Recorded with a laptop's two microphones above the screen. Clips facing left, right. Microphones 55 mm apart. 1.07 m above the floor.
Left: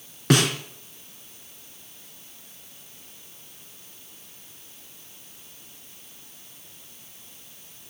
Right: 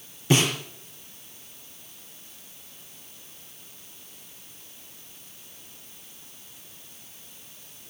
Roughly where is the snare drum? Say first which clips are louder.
Left 2 dB; left.